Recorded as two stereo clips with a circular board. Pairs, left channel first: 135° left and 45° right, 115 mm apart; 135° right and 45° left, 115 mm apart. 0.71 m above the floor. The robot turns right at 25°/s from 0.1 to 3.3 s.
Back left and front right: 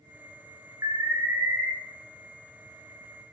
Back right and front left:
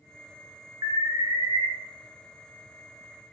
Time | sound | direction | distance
0.8 | an alarm | 5° left | 0.7 m